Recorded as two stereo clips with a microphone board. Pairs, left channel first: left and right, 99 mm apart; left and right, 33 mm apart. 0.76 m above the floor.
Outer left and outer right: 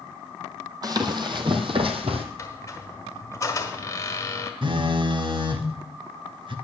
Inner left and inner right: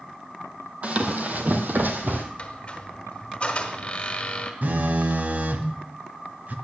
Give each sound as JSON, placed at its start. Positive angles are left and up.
{"t": 0.8, "sound": "running footsteps", "side_deg": -40, "distance_m": 1.4}
{"t": 2.4, "sound": "a squeak", "side_deg": 30, "distance_m": 1.5}
{"t": 4.6, "sound": "a phone buzzing", "side_deg": -55, "distance_m": 1.0}